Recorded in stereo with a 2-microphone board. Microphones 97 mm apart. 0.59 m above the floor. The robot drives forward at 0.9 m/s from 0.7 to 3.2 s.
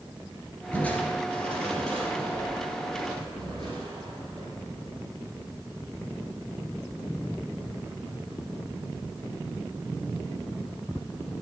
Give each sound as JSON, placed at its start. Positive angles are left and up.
{"t": 0.7, "sound": "crushing", "side_deg": 15, "distance_m": 1.5}